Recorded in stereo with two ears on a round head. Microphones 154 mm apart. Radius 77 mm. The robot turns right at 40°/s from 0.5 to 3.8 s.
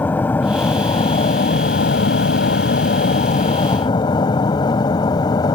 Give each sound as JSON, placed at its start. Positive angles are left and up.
{"t": 0.0, "sound": "an aircraft", "side_deg": 10}